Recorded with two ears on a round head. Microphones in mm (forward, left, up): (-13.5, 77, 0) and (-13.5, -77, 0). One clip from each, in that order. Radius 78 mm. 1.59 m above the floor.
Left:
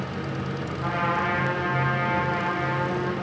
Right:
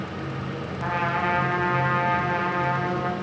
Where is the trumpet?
35° right (ahead or behind), 1.2 m.